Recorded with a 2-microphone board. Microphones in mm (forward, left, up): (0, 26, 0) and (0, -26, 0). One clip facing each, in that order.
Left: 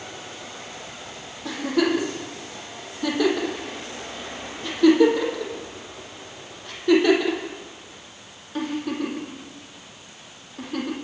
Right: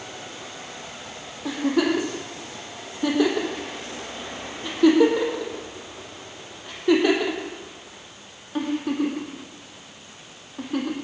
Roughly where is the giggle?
Centre.